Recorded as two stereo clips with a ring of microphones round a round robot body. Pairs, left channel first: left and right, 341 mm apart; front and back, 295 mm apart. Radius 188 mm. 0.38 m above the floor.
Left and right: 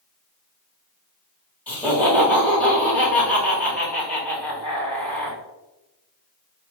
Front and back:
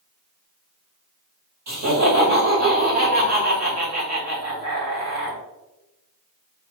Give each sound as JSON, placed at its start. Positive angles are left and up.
{"t": 1.7, "sound": "laughter", "azimuth_deg": 175, "distance_m": 2.5}